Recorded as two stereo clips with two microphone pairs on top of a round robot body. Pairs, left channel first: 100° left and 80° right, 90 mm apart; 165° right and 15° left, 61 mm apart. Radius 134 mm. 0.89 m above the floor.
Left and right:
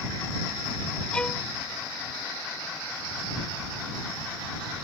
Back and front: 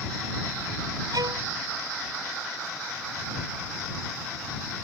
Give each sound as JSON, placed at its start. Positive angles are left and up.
{"t": 1.1, "sound": "a violin", "azimuth_deg": 20}